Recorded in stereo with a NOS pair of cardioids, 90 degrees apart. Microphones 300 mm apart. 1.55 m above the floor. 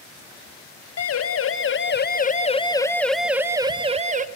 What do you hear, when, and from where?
1.0 s a siren: 55° left, 2 m; by 4.2 s 25° right, 2.0 m